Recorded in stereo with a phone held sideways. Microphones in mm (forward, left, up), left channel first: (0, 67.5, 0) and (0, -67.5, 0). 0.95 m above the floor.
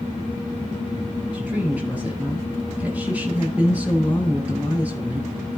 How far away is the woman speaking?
About 9 m.